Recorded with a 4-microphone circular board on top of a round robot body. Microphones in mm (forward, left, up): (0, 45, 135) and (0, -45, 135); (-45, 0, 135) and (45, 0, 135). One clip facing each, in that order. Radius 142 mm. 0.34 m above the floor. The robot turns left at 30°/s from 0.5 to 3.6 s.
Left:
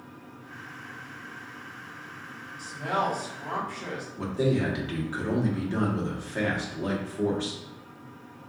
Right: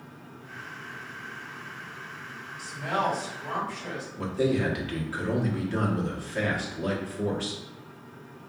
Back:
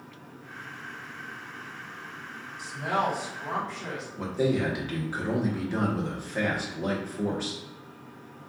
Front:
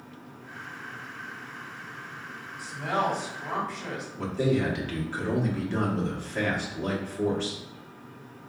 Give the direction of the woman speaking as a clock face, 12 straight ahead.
8 o'clock.